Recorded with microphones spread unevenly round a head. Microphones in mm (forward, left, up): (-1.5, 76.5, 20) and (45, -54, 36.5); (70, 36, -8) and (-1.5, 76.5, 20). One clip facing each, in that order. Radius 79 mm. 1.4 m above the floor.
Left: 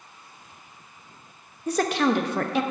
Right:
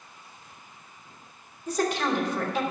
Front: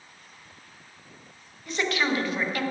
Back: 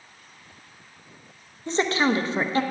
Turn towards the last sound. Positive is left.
turn(degrees=85)